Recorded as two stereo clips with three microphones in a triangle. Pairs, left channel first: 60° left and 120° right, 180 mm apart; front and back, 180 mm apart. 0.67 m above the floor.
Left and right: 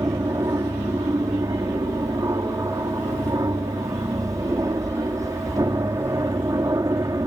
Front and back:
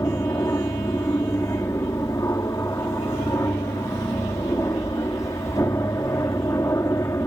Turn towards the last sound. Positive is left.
turn(degrees=-60)